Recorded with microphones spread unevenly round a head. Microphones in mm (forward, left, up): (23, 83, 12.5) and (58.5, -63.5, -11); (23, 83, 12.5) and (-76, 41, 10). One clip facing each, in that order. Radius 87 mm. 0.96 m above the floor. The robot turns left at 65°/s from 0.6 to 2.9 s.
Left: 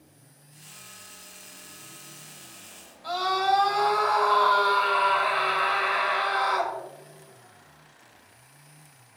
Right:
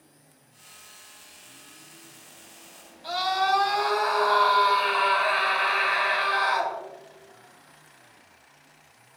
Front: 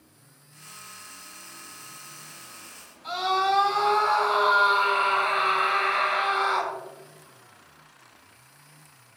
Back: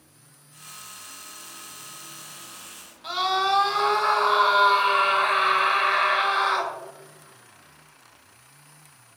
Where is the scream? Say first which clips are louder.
Even, even; 150° right, 7.5 m.